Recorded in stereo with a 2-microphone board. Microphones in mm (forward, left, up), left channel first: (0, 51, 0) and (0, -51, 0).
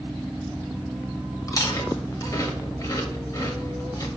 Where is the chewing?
35° left (ahead or behind), 1.3 m.